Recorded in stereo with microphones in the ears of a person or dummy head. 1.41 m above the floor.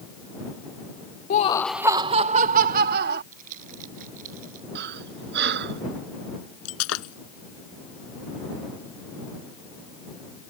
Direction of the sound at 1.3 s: 50° left (ahead or behind).